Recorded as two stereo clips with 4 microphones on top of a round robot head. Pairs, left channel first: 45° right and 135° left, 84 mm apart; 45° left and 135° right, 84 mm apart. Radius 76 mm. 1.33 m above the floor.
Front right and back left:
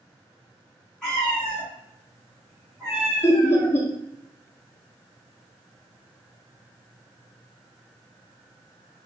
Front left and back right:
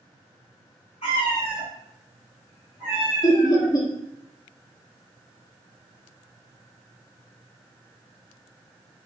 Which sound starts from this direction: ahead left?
A cat meowing, at 1.0 s.